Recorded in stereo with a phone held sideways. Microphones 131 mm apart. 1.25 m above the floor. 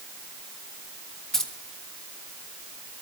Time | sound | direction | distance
1.3 | keys jangling | 5° left (ahead or behind) | 1.4 m